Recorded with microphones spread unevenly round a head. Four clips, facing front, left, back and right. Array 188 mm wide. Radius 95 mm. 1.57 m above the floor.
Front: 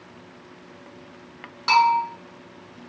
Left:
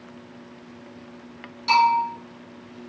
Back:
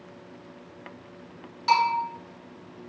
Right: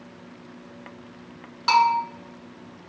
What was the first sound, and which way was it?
A bell, 40° right.